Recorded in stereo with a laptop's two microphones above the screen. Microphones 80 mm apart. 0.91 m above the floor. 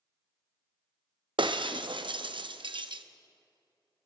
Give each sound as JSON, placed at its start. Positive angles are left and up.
{"t": 1.4, "sound": "breaking glass", "side_deg": -70, "distance_m": 0.6}